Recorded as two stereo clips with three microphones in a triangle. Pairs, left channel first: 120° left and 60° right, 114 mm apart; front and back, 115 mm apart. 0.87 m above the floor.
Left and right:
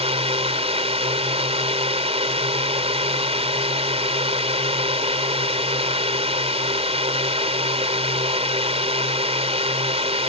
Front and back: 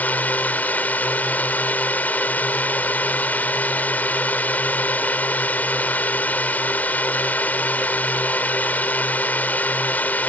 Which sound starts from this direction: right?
A drone, at 0.0 s.